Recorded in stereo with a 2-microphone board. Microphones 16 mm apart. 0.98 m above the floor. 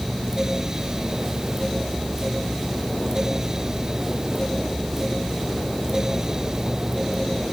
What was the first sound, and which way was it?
Only background noise.